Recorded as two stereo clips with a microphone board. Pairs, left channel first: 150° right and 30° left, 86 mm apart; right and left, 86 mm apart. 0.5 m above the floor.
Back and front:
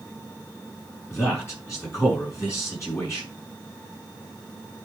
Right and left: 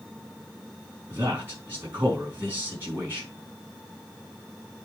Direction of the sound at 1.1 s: 155° left.